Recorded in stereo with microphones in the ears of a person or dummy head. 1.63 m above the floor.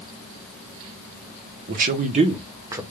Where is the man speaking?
50° right (ahead or behind), 1.0 m; by 2.8 s 20° right (ahead or behind), 0.9 m.